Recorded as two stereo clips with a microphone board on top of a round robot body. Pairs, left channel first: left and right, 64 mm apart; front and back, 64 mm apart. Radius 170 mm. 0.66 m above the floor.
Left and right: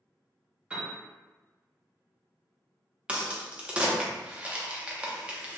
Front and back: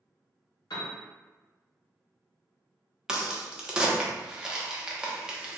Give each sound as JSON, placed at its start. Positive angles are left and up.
{"t": 0.7, "sound": "a piano", "azimuth_deg": -15, "distance_m": 0.8}
{"t": 3.1, "sound": "a crack", "azimuth_deg": -125, "distance_m": 1.0}